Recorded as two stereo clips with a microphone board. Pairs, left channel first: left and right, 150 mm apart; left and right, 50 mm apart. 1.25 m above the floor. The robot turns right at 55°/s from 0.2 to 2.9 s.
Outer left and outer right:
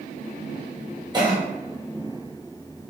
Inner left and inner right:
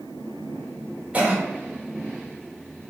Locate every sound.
1.1 s a cough: 30° right (ahead or behind), 1.1 m; by 1.4 s 40° right (ahead or behind), 1.1 m